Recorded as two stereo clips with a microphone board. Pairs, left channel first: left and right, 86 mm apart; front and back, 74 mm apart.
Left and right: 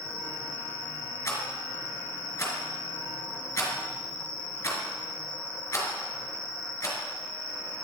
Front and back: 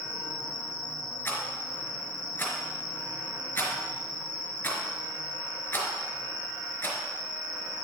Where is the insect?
30° right, 2.5 m.